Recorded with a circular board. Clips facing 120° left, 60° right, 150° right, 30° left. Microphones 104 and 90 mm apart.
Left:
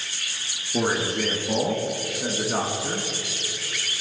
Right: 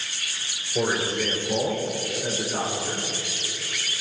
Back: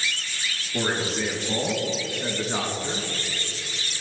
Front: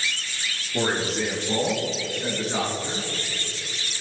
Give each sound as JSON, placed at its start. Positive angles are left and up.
{"t": 0.7, "sound": "a man speaking", "azimuth_deg": 125, "distance_m": 4.0}